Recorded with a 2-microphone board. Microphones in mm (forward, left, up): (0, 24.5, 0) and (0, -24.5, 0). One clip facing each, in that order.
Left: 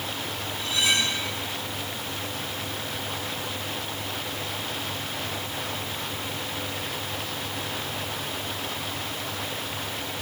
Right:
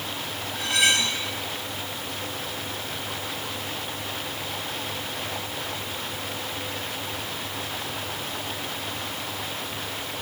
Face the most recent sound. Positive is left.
turn(degrees=-75)  # may be behind; listen again after turning